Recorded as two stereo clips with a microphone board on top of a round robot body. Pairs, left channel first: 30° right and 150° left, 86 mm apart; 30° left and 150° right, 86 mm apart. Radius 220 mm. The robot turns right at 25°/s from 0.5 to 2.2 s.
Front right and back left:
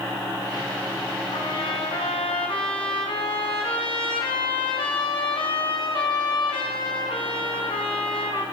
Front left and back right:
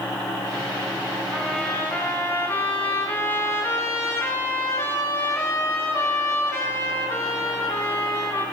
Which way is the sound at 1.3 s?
55° right.